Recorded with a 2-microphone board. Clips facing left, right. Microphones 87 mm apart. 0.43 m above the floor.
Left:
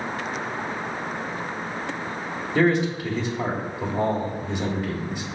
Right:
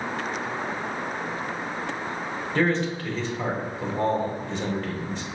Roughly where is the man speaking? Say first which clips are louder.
Left 4 dB; centre.